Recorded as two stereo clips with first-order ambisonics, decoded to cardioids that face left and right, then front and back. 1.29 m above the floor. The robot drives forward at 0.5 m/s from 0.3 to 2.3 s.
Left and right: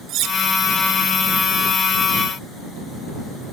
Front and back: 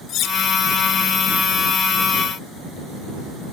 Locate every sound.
0.1 s cutlery clinking: 45° right, 1.4 m; by 0.4 s 50° right, 1.4 m